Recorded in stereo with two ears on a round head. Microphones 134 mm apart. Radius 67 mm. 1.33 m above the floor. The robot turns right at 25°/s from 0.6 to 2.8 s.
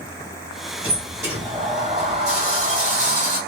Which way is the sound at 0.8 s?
165° right.